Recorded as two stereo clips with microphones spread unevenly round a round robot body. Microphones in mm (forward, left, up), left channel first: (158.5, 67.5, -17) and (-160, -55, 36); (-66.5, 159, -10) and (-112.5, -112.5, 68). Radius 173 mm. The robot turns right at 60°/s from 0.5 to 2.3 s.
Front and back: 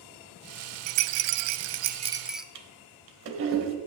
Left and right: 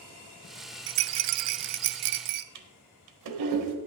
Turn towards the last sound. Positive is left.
turn(degrees=-105)